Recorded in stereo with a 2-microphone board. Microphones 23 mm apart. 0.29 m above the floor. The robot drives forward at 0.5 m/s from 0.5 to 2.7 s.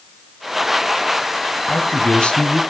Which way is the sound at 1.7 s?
60° left (ahead or behind).